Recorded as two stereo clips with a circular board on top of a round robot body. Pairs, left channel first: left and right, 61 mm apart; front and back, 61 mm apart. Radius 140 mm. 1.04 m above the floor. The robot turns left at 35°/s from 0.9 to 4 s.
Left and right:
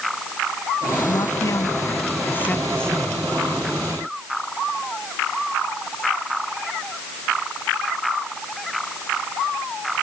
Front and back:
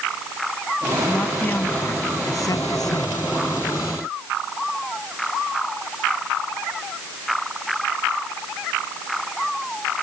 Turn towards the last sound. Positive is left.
turn(degrees=-25)